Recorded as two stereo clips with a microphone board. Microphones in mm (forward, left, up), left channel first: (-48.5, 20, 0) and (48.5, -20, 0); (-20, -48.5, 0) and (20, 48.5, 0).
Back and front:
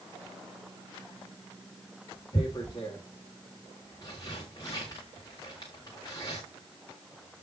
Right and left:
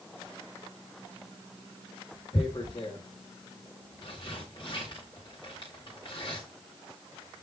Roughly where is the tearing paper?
Behind right.